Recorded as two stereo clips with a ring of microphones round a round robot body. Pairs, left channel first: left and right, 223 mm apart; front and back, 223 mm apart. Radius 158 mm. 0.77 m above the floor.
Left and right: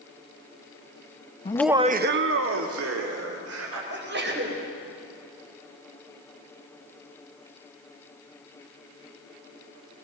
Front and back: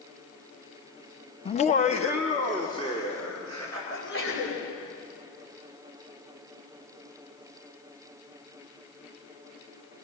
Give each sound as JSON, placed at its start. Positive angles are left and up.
{"t": 1.4, "sound": "laughter", "azimuth_deg": 45, "distance_m": 0.7}
{"t": 3.9, "sound": "a sneeze", "azimuth_deg": -50, "distance_m": 5.0}